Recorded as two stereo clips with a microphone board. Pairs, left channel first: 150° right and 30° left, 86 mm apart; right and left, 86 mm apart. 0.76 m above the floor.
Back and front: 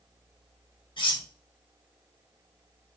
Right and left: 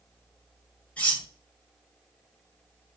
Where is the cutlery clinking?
165° right, 1.0 m.